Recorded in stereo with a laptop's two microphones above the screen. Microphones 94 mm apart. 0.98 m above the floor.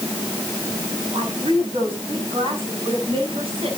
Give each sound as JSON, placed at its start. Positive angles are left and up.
{"t": 1.1, "sound": "a woman speaking", "side_deg": -70, "distance_m": 5.5}